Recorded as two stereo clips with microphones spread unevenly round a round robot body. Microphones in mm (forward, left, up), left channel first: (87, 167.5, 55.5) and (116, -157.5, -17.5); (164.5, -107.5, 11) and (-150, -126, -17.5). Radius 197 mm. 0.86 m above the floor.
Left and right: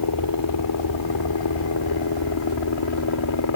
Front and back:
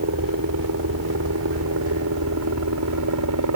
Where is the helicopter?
130° left; by 3.6 s 140° left.